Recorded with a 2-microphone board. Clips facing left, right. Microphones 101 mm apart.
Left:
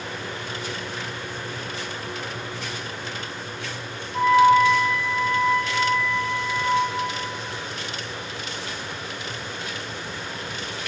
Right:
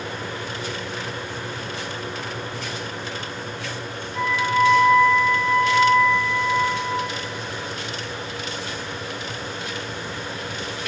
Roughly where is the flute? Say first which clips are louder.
Left 6 dB; left.